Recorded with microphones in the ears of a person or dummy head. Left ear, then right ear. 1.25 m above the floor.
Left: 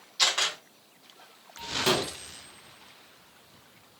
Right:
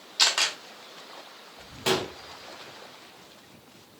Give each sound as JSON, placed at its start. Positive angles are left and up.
{"t": 0.2, "sound": "a camera shutter", "side_deg": -25, "distance_m": 1.3}
{"t": 1.9, "sound": "a gunshot", "side_deg": -5, "distance_m": 0.8}